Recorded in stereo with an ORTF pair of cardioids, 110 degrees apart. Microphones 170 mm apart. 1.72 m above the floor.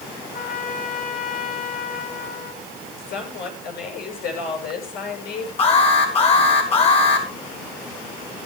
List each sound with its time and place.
0.3 s a trumpet: 60° left, 7 m
3.0 s a woman speaking: 70° left, 9 m
5.6 s an alarm: 35° left, 7 m